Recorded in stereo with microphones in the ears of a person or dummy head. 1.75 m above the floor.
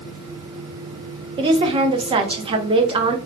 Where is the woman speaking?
25° right (ahead or behind), 0.7 m.